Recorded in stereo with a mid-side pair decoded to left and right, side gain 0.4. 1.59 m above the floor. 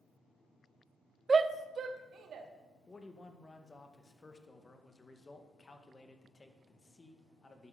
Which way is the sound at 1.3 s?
35° right.